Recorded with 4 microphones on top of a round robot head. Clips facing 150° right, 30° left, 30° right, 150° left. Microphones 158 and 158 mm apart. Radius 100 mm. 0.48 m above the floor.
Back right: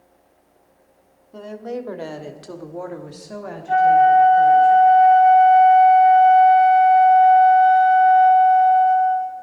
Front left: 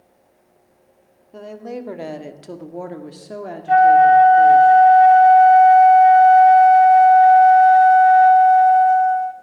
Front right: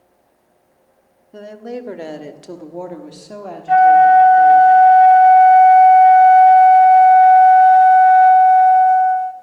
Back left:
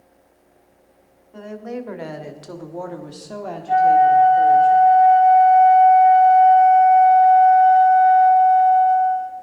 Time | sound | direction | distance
1.3 | a woman speaking | 55° right | 1.5 m
3.7 | a flute | straight ahead | 0.5 m